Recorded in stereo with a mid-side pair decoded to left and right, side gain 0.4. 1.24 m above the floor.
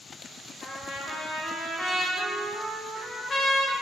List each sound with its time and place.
0.6 s a trumpet: 65° left, 2.5 m